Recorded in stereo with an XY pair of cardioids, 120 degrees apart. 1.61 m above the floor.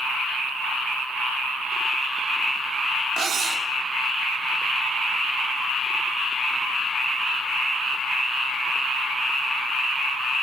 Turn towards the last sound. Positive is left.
turn(degrees=-55)